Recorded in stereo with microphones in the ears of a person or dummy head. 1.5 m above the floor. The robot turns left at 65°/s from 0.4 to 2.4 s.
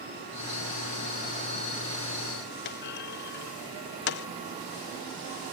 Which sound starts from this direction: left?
A clunk, at 2.6 s.